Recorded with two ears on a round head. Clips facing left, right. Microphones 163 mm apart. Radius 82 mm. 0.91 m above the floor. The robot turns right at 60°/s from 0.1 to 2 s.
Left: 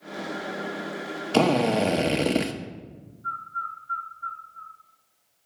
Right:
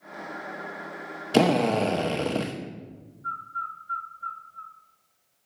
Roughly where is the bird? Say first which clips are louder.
Left 1 dB; right.